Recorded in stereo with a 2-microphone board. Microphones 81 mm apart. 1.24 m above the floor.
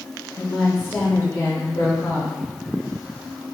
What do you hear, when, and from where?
0.4 s a woman speaking: 20° left (ahead or behind), 1.3 m; by 2.4 s 40° left (ahead or behind), 0.7 m